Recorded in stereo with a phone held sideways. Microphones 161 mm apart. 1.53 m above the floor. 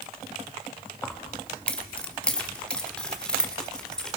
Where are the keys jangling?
10° left (ahead or behind), 1.8 m; by 4.2 s 5° left (ahead or behind), 3.5 m.